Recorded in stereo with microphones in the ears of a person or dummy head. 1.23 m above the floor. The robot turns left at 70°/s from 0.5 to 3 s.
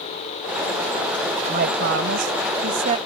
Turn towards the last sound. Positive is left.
turn(degrees=-150)